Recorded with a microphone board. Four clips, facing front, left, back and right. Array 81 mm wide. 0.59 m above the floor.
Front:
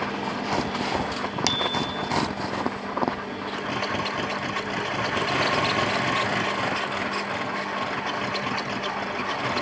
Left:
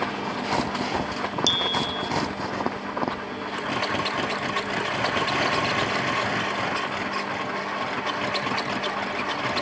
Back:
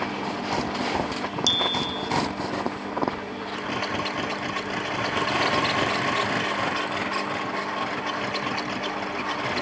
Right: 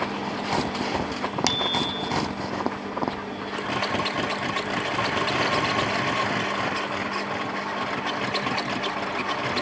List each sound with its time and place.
1.5 s a bicycle bell: 50° right, 3 m